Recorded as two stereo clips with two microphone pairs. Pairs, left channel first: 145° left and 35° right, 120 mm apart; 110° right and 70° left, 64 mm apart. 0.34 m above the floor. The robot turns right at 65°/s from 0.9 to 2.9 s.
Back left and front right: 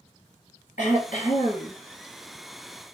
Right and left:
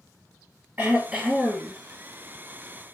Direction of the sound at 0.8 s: 135° left.